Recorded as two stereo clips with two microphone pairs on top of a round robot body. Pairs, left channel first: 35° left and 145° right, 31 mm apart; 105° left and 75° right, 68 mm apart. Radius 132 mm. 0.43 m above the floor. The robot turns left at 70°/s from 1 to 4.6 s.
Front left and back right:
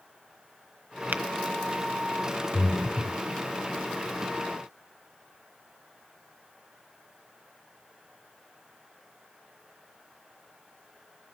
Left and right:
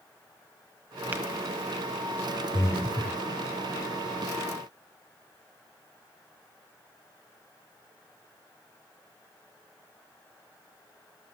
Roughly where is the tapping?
Behind right.